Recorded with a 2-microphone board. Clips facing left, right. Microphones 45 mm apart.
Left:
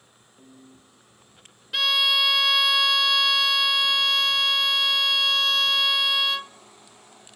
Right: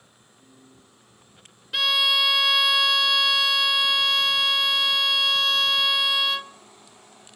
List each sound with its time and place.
0.4 s a piano: 45° left (ahead or behind), 5.5 m
1.7 s a violin: centre (ahead or behind), 0.5 m